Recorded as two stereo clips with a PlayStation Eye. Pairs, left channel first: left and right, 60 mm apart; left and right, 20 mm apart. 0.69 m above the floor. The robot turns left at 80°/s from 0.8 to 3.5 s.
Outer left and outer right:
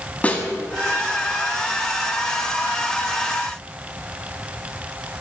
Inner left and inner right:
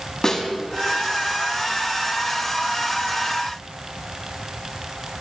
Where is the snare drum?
25° left (ahead or behind), 1.0 m.